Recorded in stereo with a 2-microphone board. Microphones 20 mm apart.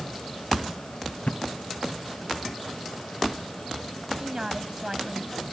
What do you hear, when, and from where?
1.3 s a thud: 85° left
4.2 s a woman speaking: 35° right (ahead or behind)